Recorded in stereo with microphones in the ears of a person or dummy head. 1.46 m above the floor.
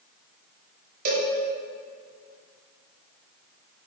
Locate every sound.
1.1 s a cowbell: 40° right (ahead or behind), 1.5 m